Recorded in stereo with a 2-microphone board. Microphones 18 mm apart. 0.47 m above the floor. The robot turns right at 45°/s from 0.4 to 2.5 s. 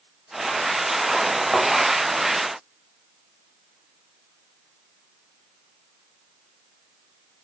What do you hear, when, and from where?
1.5 s a thud: 75° left (ahead or behind), 7 m; by 1.7 s 80° left, 7 m